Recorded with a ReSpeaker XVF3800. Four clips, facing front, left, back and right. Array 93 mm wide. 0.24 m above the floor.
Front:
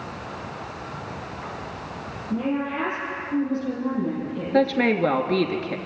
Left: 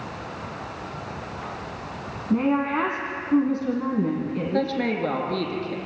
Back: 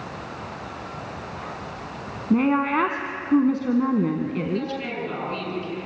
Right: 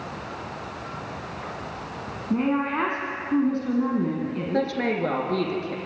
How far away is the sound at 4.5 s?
About 3.5 m.